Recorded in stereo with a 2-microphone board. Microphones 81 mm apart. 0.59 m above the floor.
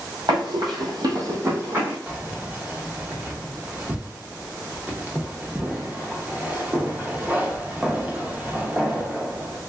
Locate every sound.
0.3 s running footsteps: 65° right (ahead or behind), 1.4 m; by 2.0 s 20° right (ahead or behind), 1.5 m
2.1 s keys jangling: 20° right (ahead or behind), 0.6 m